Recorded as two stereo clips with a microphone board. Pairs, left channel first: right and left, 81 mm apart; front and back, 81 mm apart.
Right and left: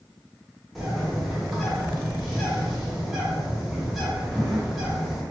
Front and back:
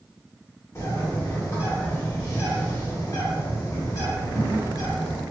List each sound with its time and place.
0.8 s a bird: 5° left, 0.8 m